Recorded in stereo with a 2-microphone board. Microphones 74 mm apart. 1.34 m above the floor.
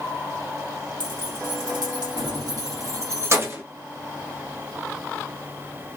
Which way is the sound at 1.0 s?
70° right (ahead or behind).